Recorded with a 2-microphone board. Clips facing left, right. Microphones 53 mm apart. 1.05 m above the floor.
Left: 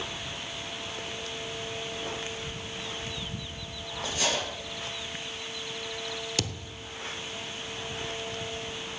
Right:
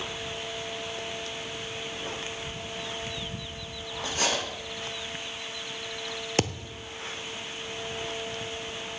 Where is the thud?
40° right (ahead or behind), 0.9 m.